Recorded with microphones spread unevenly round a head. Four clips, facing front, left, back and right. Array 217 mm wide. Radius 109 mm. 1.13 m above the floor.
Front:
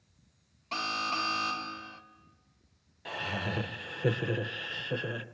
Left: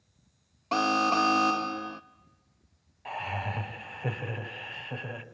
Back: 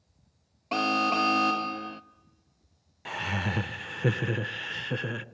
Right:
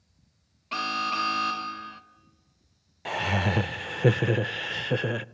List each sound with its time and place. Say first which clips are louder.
0.7 s an alarm: left 5 dB, back 8 dB; 125° left, 0.6 m
3.0 s laughter: right 6 dB, back 3 dB; 100° right, 0.6 m